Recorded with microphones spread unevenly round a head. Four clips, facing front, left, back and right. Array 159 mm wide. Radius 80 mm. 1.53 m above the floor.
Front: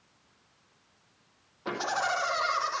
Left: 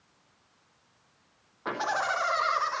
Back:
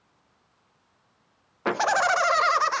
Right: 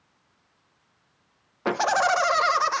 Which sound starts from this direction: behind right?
Laughter, at 1.6 s.